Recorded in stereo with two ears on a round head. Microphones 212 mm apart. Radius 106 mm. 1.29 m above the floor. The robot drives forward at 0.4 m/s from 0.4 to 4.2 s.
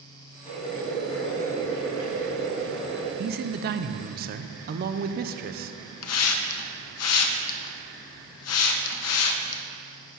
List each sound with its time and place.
0.5 s boiling: 30° left (ahead or behind), 3.5 m; by 3.1 s 25° left (ahead or behind), 4.5 m
3.2 s a man speaking: 40° right (ahead or behind), 0.6 m
6.0 s a hiss: 65° left (ahead or behind), 0.8 m